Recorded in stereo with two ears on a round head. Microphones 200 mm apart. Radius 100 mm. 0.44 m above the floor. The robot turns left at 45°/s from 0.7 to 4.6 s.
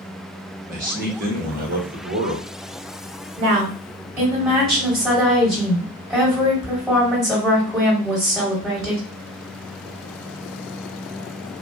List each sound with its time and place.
0.7 s a man speaking: 60° right, 1.0 m; by 2.5 s 140° right, 1.0 m
3.4 s a woman speaking: 130° right, 1.5 m; by 9.0 s 175° left, 1.5 m